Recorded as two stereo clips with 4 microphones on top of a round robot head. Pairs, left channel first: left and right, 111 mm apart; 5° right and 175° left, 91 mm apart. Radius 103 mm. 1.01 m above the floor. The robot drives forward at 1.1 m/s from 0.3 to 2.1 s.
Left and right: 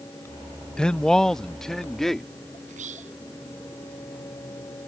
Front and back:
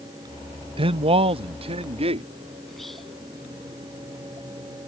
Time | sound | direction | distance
0.8 | a man speaking | 170° left | ?
2.7 | whispering | 95° right | ?